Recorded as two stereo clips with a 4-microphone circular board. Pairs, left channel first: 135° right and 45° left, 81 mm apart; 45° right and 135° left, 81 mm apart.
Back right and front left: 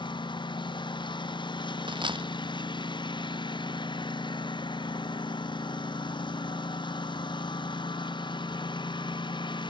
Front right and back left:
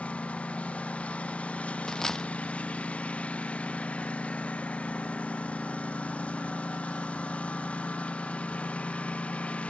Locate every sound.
0.0 s a lawn mower: 120° right
1.9 s a dropped coin: 40° left